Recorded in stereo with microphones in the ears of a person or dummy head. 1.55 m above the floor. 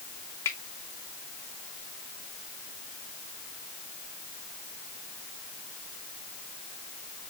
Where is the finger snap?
10° left (ahead or behind), 2 m.